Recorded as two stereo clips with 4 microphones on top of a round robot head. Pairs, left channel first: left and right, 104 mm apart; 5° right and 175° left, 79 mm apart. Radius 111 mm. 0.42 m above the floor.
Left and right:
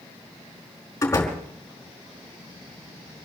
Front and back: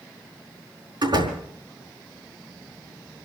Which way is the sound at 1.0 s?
150° left.